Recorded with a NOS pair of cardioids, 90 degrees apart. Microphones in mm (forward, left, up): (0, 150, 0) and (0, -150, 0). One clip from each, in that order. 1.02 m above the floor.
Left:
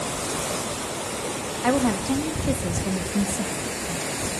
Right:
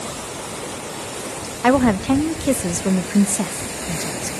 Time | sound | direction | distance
1.6 | a woman speaking | 45° right | 1.0 m